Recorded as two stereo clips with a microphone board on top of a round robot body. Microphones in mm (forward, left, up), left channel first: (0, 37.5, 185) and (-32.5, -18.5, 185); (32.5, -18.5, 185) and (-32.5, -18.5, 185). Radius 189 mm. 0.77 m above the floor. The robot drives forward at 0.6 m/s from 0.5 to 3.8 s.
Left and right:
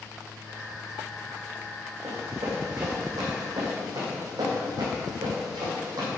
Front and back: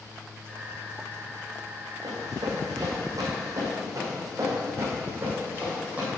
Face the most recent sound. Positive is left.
turn(degrees=-110)